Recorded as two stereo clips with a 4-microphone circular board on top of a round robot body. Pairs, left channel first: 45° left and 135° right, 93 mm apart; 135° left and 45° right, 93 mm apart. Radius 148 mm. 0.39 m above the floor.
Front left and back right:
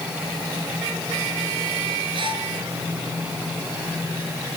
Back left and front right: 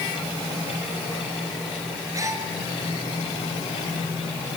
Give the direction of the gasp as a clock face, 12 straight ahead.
3 o'clock.